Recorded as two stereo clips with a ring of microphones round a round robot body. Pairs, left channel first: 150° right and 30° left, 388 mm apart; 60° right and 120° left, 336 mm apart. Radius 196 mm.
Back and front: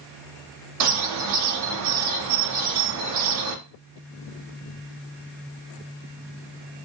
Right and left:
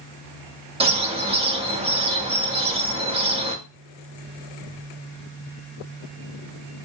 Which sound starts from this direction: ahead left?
A bird, at 0.8 s.